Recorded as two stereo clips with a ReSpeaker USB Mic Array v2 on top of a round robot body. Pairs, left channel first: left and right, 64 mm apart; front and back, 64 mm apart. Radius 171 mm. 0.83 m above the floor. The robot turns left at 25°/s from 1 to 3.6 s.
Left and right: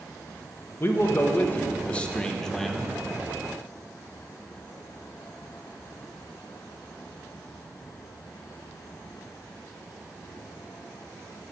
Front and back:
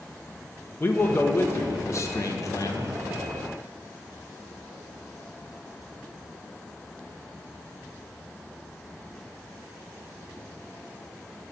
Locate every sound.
0.8 s a man speaking: 45° left, 0.7 m; by 3.0 s 5° right, 0.7 m